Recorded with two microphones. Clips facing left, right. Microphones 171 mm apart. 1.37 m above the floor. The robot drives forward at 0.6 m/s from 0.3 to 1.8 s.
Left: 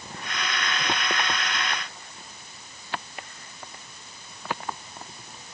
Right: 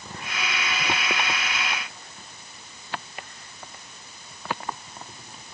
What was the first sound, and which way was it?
Only background noise.